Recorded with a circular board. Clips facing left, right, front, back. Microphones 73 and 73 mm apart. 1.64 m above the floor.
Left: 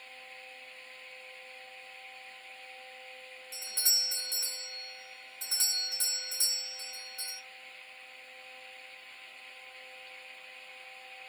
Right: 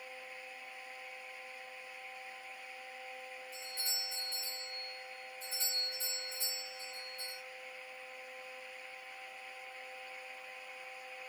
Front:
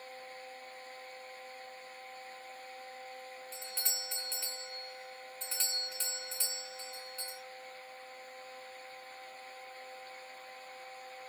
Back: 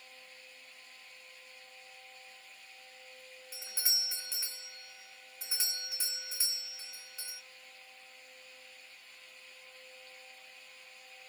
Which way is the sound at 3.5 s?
100° left.